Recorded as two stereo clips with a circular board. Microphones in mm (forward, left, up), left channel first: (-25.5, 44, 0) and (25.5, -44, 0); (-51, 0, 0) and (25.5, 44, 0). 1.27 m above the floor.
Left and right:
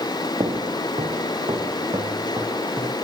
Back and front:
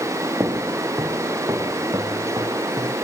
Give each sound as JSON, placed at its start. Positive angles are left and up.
{"t": 0.4, "sound": "footsteps", "azimuth_deg": -30, "distance_m": 2.5}